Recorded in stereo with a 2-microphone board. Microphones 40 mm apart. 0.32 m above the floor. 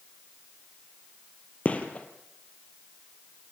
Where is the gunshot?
35° left (ahead or behind), 2.5 m.